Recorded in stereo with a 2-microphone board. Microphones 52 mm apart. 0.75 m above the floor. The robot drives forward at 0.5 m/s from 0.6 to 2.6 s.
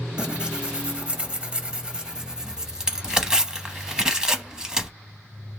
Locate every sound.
0.2 s tearing paper: 20° right (ahead or behind), 0.6 m; by 4.9 s 15° right (ahead or behind), 0.9 m